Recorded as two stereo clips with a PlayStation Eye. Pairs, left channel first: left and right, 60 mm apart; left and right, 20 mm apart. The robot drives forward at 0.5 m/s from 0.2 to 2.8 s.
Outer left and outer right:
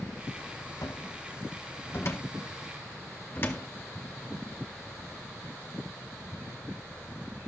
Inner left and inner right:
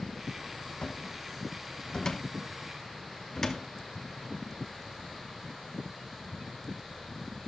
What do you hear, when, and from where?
0.8 s a cupboard door: 60° left (ahead or behind), 1.3 m; by 3.7 s 35° left (ahead or behind), 2.0 m